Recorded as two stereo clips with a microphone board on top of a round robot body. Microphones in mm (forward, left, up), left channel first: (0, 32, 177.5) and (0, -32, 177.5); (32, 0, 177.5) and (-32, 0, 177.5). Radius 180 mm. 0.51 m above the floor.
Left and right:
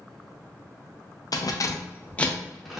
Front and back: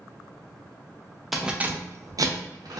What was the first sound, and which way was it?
Keys jangling, 95° left.